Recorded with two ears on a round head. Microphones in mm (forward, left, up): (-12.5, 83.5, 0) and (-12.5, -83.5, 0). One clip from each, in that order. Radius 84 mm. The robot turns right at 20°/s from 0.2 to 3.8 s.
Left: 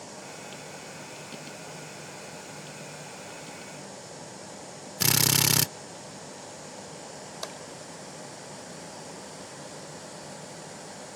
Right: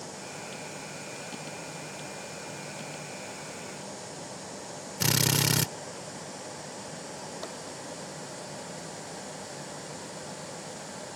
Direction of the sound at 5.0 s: 20° left (ahead or behind).